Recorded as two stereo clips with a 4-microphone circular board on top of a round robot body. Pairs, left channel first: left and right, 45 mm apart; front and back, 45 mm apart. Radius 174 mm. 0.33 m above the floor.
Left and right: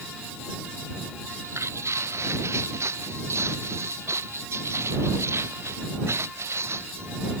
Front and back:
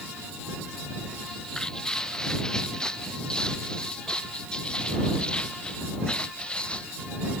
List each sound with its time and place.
1.2 s footsteps: 80° right; by 7.4 s 70° right